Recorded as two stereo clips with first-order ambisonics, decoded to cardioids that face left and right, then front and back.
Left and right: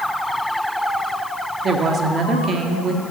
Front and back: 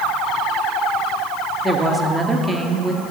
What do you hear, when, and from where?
1.6 s a woman speaking: 110° right, 0.8 m